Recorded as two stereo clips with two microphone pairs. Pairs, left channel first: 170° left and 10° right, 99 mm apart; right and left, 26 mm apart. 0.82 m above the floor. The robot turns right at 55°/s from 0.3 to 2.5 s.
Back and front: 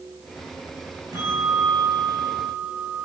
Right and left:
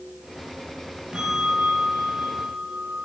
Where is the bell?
40° left, 8 m; by 3.0 s 115° left, 8 m.